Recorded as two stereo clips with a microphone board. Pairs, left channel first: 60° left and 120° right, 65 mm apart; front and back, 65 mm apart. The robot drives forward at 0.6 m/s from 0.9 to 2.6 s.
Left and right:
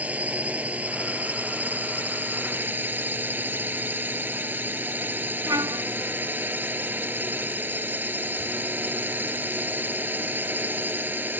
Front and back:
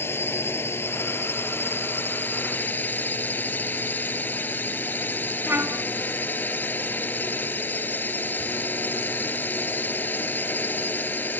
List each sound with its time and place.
0.0 s a drone: 50° right; by 11.4 s 60° right
5.5 s a trumpet: 130° right